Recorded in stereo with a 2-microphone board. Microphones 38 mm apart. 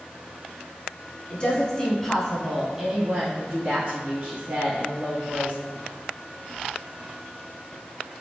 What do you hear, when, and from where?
1.3 s a woman speaking: 30° left (ahead or behind), 1.3 m; by 5.5 s 60° right (ahead or behind), 2.0 m